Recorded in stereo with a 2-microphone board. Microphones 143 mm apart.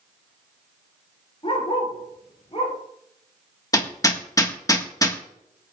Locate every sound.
1.4 s a dog barking: 40° left (ahead or behind), 6 m
3.7 s hammering: 25° left (ahead or behind), 1.4 m